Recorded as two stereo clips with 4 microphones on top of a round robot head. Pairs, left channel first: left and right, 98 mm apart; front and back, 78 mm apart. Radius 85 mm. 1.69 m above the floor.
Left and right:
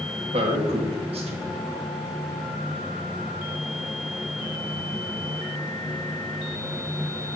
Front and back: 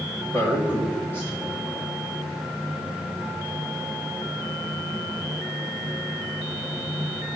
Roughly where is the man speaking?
Right.